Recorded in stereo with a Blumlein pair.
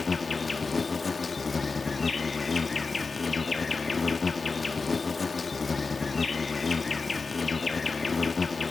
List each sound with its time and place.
0.0 s an insect: 15° left